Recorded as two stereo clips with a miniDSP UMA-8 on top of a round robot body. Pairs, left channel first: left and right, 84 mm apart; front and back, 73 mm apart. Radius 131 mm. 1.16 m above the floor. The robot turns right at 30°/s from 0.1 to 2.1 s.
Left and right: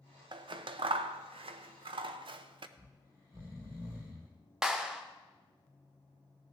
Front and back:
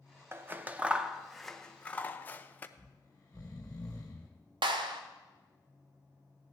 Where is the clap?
175° right, 0.5 m.